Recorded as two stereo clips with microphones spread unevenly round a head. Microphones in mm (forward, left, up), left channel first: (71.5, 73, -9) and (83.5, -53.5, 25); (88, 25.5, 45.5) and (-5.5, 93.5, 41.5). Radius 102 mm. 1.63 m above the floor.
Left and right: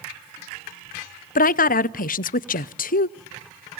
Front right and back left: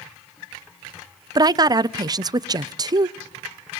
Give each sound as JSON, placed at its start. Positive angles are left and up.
{"t": 1.4, "sound": "a woman speaking", "azimuth_deg": 95, "distance_m": 0.6}